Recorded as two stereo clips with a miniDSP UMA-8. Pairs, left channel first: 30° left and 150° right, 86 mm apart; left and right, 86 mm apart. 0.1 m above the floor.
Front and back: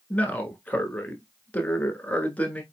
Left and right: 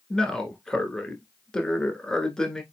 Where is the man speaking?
25° left, 1.1 m.